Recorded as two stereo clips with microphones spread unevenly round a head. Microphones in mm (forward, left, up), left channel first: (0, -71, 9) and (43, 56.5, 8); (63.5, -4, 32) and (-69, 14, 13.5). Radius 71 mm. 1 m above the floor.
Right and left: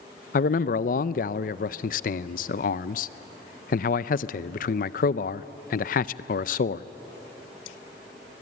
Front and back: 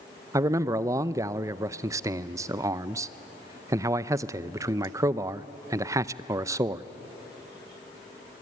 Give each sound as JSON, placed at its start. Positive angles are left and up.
{"t": 0.3, "sound": "a man speaking", "azimuth_deg": -125, "distance_m": 0.5}